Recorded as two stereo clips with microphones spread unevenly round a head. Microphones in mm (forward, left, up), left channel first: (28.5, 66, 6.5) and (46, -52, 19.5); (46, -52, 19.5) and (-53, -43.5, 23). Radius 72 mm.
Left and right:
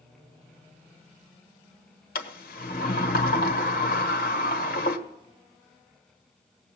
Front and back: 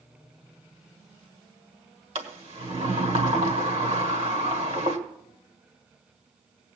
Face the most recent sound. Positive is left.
turn(degrees=125)